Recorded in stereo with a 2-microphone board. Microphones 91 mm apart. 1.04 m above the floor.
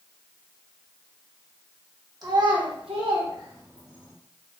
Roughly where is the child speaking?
Right.